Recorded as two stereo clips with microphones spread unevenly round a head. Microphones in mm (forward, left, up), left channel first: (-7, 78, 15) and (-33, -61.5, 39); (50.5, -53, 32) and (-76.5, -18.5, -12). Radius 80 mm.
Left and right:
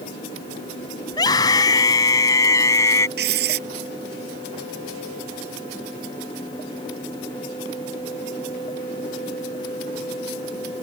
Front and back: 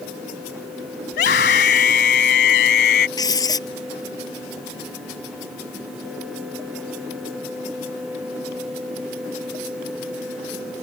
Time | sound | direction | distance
1.1 | a scream | 10° left | ?
3.2 | writing | 75° right | ?